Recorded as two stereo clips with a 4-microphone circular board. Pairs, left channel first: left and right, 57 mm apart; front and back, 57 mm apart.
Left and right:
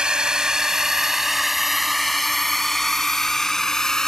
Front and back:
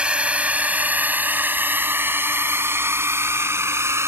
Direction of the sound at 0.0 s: 145° right.